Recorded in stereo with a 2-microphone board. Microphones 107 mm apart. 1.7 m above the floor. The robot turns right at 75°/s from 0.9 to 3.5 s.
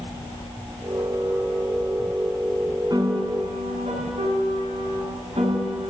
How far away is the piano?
About 7 m.